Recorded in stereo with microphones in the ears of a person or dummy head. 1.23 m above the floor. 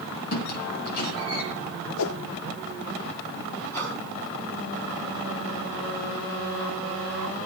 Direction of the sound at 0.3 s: 60° left (ahead or behind).